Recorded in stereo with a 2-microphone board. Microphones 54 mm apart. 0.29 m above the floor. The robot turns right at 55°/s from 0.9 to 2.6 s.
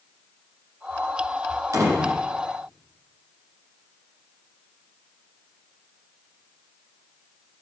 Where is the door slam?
65° right (ahead or behind), 9 m; by 2.2 s 85° right, 9 m.